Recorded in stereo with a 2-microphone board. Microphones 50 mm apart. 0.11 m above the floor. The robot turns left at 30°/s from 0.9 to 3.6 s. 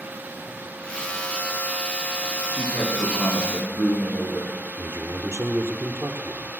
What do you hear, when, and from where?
2.5 s a man speaking: 130° left, 8.5 m; by 4.5 s 95° left, 8.5 m
4.8 s a man speaking: 50° right (ahead or behind), 2.5 m